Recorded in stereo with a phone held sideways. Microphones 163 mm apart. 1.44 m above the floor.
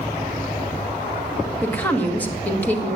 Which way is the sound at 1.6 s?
10° left (ahead or behind).